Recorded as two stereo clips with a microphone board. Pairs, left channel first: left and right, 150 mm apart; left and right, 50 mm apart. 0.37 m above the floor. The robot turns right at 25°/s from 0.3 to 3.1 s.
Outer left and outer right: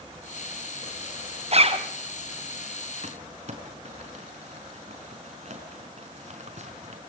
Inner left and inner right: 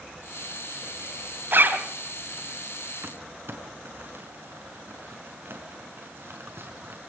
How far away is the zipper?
About 2 m.